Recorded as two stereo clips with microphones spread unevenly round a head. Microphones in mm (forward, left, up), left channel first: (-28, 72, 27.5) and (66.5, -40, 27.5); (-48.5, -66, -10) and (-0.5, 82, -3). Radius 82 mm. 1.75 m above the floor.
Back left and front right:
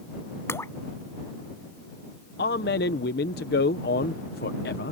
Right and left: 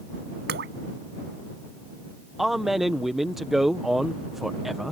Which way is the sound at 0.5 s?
60° left.